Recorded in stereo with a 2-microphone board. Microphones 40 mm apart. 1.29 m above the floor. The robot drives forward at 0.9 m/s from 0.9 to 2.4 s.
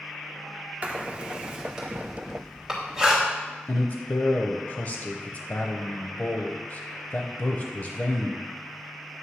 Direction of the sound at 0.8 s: 35° right (ahead or behind).